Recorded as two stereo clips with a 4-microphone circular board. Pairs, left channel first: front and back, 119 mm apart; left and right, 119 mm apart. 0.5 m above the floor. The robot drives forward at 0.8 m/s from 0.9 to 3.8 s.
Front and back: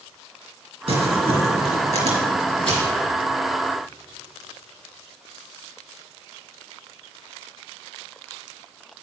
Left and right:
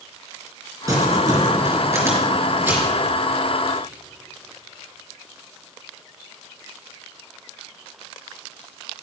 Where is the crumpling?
150° right, 2.5 m; by 2.9 s 160° right, 4 m.